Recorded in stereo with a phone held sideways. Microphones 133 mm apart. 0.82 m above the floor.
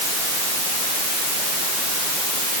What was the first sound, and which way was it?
Only background noise.